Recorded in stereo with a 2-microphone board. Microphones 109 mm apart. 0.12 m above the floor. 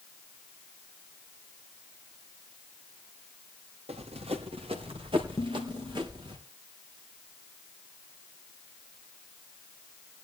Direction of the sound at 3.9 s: 70° right (ahead or behind).